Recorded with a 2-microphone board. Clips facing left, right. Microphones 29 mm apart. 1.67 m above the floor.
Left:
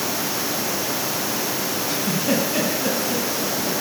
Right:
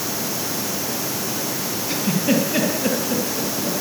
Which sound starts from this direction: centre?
A giggle, at 1.9 s.